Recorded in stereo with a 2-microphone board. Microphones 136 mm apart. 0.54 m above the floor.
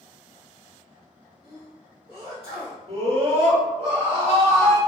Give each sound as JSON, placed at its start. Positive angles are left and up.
{"t": 1.4, "sound": "a sneeze", "side_deg": 45, "distance_m": 1.8}
{"t": 2.9, "sound": "a scream", "side_deg": -45, "distance_m": 1.5}